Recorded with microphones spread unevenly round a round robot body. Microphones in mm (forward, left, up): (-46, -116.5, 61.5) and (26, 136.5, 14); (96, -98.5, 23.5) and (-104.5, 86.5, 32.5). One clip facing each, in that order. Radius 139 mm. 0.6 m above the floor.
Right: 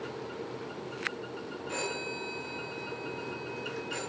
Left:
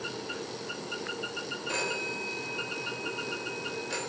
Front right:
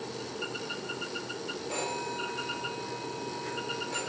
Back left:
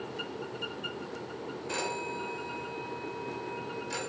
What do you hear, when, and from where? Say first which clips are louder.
1.7 s a phone ringing: left 2 dB, back left 1 dB; 80° left, 1.9 m